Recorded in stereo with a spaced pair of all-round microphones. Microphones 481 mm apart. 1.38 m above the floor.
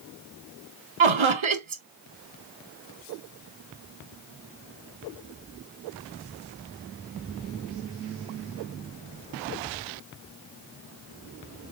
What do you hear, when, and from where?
1.0 s laughter: 75° right (ahead or behind), 0.7 m